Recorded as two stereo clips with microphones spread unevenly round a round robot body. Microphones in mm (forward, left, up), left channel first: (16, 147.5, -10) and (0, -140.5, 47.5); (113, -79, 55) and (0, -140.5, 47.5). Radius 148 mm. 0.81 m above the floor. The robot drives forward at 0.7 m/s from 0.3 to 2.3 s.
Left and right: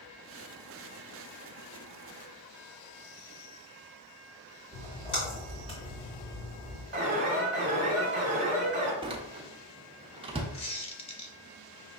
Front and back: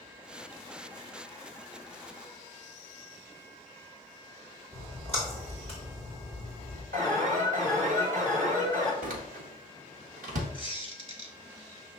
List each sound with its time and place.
4.7 s a splash: 155° left, 2 m
6.9 s an alarm: 160° right, 1.3 m
9.0 s a door slam: 170° right, 0.6 m
10.5 s a squeak: 160° left, 0.7 m